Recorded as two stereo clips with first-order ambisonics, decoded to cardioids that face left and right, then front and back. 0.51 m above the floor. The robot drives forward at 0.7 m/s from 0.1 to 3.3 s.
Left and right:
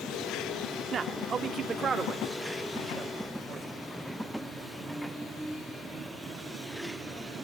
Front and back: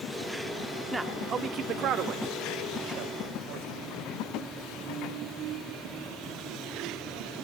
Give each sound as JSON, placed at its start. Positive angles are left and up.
{"t": 0.9, "sound": "a man speaking", "azimuth_deg": -105, "distance_m": 0.9}